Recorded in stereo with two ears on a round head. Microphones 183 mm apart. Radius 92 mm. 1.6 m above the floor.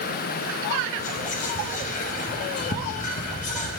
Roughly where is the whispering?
Left.